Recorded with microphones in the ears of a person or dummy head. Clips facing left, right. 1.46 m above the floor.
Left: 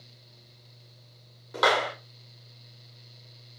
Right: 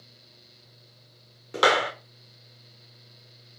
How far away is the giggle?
I don't hear a giggle.